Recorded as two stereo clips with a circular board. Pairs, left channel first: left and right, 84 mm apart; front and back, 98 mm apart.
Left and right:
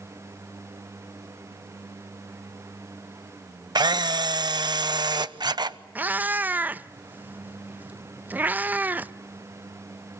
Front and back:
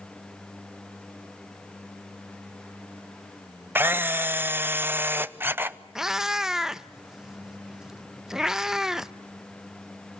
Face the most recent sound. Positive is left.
turn(degrees=-105)